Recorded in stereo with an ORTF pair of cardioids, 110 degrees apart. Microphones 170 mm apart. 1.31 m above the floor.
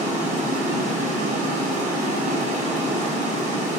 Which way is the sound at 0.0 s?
40° right.